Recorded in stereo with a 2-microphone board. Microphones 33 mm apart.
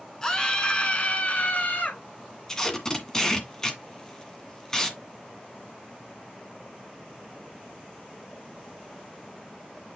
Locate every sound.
0.2 s a scream: 20° left (ahead or behind), 2.5 m; by 2.0 s 55° left (ahead or behind), 3 m
2.5 s tape being pulled: 20° left (ahead or behind), 1.9 m